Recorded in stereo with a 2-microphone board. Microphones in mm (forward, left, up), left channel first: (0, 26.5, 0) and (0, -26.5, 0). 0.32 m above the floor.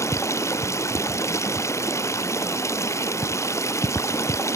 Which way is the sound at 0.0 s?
65° left (ahead or behind).